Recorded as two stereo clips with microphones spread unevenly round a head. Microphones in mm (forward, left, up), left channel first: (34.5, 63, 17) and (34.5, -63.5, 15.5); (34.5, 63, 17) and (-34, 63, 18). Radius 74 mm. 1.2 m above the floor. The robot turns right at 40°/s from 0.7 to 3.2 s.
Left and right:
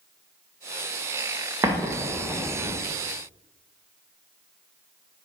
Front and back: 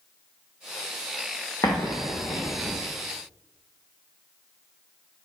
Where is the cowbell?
I don't hear a cowbell.